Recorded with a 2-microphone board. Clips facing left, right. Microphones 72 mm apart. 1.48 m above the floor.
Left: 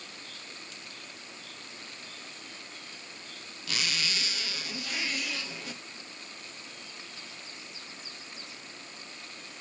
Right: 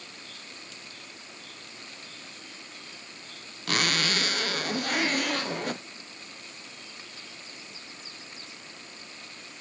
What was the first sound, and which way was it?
A zipper, 55° right (ahead or behind).